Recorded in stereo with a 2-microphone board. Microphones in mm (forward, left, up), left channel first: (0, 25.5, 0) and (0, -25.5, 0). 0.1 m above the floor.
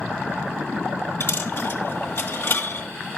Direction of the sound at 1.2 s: 45° left (ahead or behind).